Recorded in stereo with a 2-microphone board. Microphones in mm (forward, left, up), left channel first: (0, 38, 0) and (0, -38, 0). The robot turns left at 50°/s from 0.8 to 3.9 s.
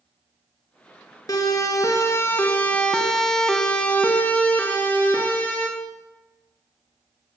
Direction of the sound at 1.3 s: 50° left (ahead or behind).